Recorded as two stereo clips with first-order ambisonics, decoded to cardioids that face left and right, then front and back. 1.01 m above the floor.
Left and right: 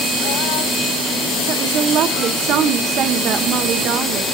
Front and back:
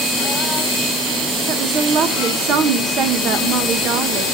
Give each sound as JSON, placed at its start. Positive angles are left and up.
{"t": 1.5, "sound": "a woman speaking", "azimuth_deg": -135, "distance_m": 0.9}